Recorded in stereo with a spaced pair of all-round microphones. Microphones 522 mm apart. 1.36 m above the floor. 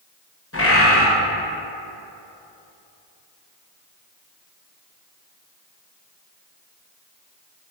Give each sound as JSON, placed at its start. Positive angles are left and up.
{"t": 0.5, "sound": "a bird", "side_deg": 25, "distance_m": 0.7}